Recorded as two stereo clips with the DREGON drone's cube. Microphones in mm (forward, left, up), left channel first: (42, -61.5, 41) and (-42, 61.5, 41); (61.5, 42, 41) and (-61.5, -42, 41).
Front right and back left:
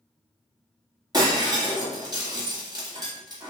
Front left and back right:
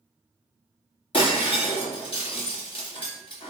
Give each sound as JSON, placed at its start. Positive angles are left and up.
{"t": 1.1, "sound": "breaking glass", "azimuth_deg": 70, "distance_m": 1.0}